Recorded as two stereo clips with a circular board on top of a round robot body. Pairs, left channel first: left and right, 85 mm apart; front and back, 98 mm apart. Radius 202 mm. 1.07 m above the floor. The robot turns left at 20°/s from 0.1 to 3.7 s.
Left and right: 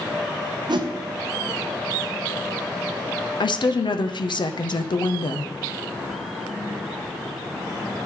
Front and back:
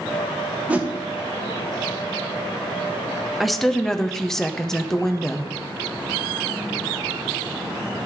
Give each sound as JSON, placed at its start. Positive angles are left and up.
{"t": 0.7, "sound": "a whoosh", "azimuth_deg": -105, "distance_m": 1.0}
{"t": 3.4, "sound": "a woman speaking", "azimuth_deg": 90, "distance_m": 0.9}